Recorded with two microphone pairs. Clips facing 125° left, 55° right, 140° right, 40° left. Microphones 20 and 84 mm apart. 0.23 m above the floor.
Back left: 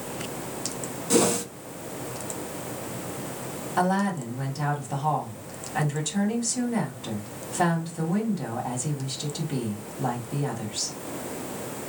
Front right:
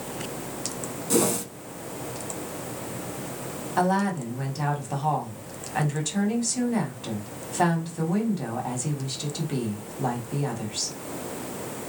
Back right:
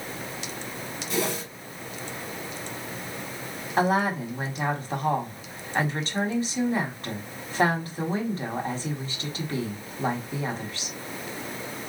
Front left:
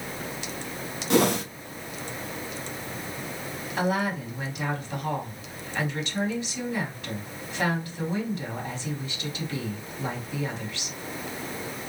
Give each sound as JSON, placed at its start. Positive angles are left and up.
{"t": 1.1, "sound": "a whoosh", "azimuth_deg": 50, "distance_m": 0.6}
{"t": 3.8, "sound": "a woman speaking", "azimuth_deg": -125, "distance_m": 1.6}